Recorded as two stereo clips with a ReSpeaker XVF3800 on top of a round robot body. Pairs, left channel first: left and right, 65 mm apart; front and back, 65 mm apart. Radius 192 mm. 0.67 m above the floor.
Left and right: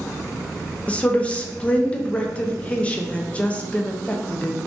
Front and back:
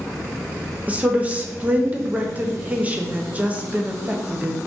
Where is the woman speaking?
140° left, 0.7 m.